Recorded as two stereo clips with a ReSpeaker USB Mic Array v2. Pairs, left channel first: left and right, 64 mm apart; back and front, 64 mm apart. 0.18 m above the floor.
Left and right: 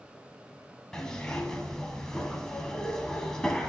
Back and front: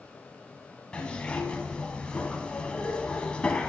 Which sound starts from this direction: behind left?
A zipper, at 0.9 s.